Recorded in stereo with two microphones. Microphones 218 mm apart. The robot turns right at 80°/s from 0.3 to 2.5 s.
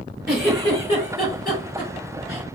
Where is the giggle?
5° right (ahead or behind), 2.5 m; by 2.5 s 10° left (ahead or behind), 2.5 m.